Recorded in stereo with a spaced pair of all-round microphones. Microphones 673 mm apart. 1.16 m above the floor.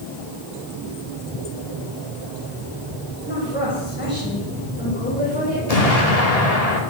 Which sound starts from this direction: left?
An explosion, at 5.7 s.